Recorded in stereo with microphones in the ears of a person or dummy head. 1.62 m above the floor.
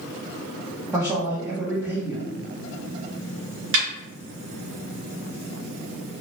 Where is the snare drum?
70° right (ahead or behind), 1.5 m.